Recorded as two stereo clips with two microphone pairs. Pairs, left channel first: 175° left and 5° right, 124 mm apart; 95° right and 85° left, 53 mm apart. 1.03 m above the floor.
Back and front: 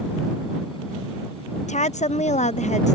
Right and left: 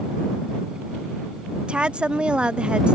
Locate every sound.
1.7 s a woman speaking: 155° left